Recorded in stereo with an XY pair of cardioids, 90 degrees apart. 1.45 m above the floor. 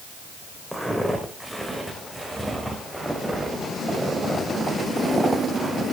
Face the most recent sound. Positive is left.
turn(degrees=-10)